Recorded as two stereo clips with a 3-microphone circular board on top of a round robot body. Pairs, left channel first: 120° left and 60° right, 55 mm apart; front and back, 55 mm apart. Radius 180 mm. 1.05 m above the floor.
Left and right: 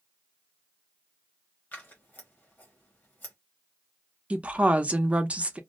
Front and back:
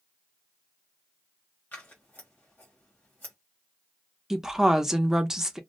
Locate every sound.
1.7 s scissors: 60° left, 1.0 m
4.3 s a woman speaking: 105° right, 0.7 m